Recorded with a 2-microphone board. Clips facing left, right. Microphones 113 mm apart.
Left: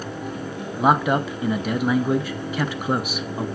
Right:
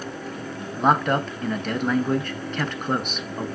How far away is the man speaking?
About 0.6 m.